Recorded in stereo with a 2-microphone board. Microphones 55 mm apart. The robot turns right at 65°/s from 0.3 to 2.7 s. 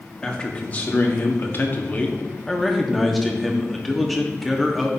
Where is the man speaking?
20° left, 0.9 m; by 4.9 s 175° left, 0.9 m.